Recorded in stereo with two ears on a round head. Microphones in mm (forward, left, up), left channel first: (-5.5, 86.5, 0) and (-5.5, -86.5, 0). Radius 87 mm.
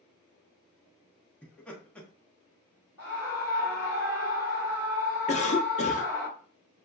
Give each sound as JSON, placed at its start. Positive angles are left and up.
{"t": 1.4, "sound": "laughter", "side_deg": 5, "distance_m": 1.1}
{"t": 3.0, "sound": "a scream", "side_deg": 10, "distance_m": 1.4}
{"t": 5.3, "sound": "a cough", "side_deg": 35, "distance_m": 0.6}